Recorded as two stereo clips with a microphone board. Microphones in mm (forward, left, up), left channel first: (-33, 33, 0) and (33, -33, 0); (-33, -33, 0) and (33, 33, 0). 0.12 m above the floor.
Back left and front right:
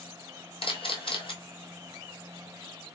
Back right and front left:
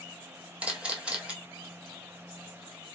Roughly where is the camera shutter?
Behind left.